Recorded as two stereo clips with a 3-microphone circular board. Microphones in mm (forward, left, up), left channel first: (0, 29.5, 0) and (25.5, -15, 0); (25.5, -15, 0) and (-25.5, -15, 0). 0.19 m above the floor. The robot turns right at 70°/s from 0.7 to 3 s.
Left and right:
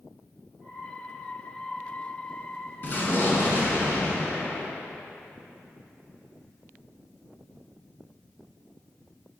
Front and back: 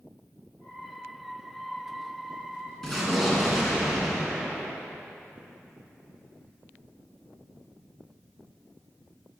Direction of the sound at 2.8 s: 75° left.